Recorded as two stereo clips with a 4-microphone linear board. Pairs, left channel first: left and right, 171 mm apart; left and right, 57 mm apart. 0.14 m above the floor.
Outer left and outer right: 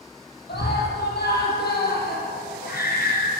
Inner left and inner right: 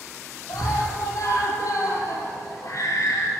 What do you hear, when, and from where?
0.5 s a scream: 75° left (ahead or behind), 5.5 m; by 3.3 s 60° left (ahead or behind), 3 m